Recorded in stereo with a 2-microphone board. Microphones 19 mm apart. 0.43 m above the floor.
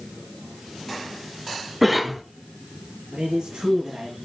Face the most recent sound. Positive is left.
turn(degrees=-65)  # may be behind; listen again after turning